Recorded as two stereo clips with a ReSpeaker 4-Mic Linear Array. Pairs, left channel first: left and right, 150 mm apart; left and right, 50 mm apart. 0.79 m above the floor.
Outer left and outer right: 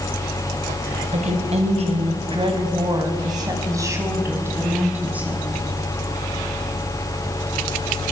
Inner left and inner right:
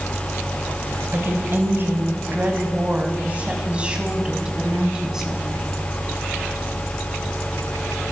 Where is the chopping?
I don't hear chopping.